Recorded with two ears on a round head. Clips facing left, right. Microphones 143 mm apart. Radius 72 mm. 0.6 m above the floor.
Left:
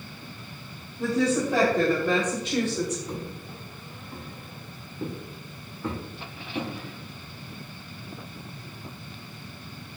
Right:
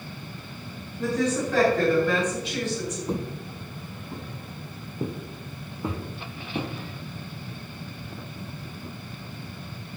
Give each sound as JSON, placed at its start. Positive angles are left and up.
{"t": 1.0, "sound": "a woman speaking", "side_deg": 5, "distance_m": 3.5}
{"t": 3.1, "sound": "footsteps", "side_deg": -25, "distance_m": 0.9}